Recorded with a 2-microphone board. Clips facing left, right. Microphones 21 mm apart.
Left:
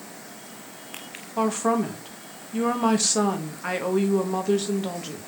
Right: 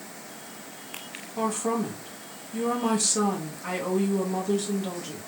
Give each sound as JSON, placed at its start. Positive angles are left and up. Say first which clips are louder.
{"t": 1.4, "sound": "a woman speaking", "louder": "left 4 dB", "side_deg": 35, "distance_m": 0.7}